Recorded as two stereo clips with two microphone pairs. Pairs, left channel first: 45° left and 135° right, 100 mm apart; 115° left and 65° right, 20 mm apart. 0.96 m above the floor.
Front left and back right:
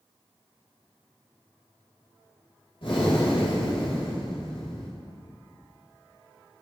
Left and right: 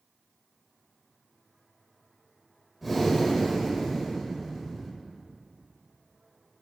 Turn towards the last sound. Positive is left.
turn(degrees=15)